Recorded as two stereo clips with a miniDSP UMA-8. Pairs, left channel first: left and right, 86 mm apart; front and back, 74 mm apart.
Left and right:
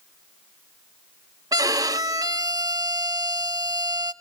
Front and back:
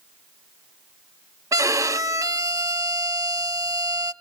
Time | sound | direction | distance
1.5 | a violin | 135° right | 0.5 m